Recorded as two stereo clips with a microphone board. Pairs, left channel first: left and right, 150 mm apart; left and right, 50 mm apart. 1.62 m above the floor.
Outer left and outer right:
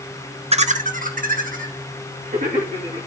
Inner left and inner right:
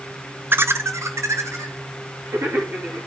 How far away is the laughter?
About 0.8 m.